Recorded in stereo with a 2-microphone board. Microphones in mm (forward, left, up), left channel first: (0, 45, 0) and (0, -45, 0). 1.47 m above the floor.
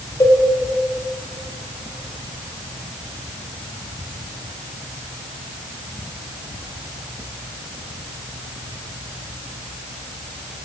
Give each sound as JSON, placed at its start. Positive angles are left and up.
{"t": 0.2, "sound": "a cowbell", "side_deg": 40, "distance_m": 1.2}